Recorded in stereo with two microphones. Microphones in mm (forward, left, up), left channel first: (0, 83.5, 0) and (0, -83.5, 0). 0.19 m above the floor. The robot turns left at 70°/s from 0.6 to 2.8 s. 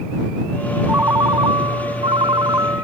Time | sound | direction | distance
0.9 | a ringtone | 20° right | ?